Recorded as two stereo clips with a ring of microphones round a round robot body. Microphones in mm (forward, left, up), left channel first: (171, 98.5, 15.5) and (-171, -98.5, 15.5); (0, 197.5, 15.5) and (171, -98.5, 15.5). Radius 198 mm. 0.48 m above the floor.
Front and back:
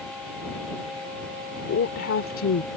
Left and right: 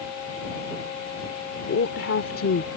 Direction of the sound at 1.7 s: 80° left.